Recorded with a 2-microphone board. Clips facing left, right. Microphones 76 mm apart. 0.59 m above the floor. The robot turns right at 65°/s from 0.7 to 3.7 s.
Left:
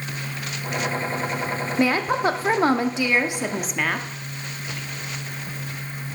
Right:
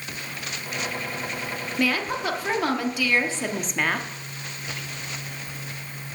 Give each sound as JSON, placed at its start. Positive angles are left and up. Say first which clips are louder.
{"t": 1.8, "sound": "a woman speaking", "louder": "left 4 dB", "azimuth_deg": 50, "distance_m": 0.8}